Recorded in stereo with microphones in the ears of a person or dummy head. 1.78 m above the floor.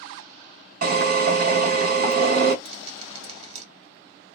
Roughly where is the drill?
Right.